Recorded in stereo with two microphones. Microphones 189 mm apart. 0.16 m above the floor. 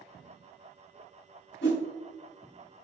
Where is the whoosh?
65° left (ahead or behind), 3 m.